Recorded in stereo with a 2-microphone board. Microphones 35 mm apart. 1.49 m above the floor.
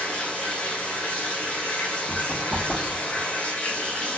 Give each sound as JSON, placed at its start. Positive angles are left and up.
{"t": 0.0, "sound": "running water", "side_deg": 35, "distance_m": 0.8}
{"t": 2.1, "sound": "running footsteps", "side_deg": 20, "distance_m": 1.6}